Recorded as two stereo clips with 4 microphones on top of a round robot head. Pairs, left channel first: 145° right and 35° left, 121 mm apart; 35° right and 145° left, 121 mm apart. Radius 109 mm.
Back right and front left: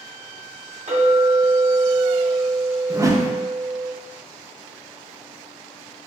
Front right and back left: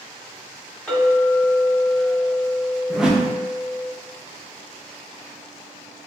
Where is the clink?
50° left, 1.7 m.